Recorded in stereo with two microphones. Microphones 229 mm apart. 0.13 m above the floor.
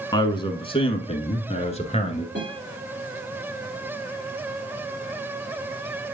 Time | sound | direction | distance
0.1 | a man speaking | 20° left (ahead or behind) | 1.3 m
2.4 | a guitar | 50° right (ahead or behind) | 5.5 m